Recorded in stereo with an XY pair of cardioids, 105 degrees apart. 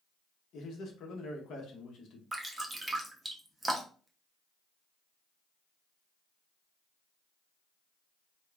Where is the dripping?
20° right, 0.8 m.